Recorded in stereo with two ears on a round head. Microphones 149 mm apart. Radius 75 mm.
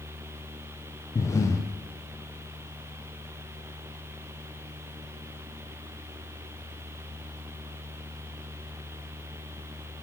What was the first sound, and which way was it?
Breathing, 15° left (ahead or behind).